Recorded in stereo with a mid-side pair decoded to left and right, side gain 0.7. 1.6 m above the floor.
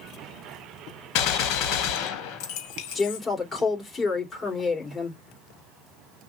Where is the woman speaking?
20° left, 2.5 m.